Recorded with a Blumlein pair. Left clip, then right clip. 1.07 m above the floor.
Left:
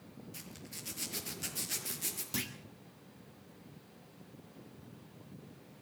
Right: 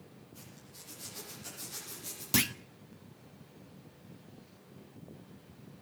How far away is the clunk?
About 0.8 m.